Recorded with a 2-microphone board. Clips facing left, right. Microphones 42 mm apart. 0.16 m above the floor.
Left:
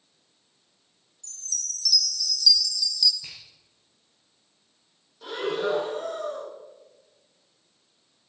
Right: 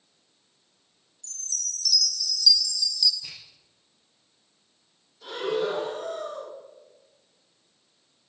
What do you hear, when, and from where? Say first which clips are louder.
1.2 s a chime: even; centre (ahead or behind), 2 m
3.2 s a finger snap: even; 45° left (ahead or behind), 6.5 m
5.2 s breathing: even; 30° left (ahead or behind), 9 m